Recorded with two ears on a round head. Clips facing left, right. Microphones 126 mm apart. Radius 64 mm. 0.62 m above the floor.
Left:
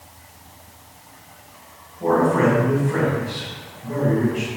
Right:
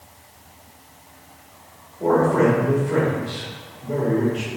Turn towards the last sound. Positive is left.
turn(degrees=-45)  # may be behind; listen again after turning